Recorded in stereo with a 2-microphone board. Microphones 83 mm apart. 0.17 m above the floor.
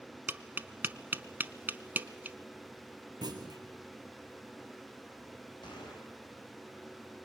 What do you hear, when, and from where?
0.3 s tapping: 25° right (ahead or behind), 0.8 m
3.2 s a clunk: 55° right (ahead or behind), 2.5 m
5.6 s a gunshot: 65° left (ahead or behind), 9.5 m